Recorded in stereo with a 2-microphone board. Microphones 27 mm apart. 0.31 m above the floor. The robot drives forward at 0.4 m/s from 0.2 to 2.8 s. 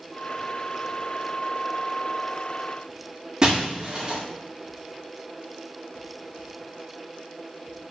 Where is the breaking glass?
25° right (ahead or behind), 6 m.